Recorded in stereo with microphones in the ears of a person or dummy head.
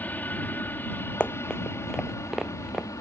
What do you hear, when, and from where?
0.0 s an aircraft: 5° left (ahead or behind); by 3.0 s 15° left (ahead or behind)
1.2 s running footsteps: 10° left (ahead or behind); by 2.9 s 5° right (ahead or behind)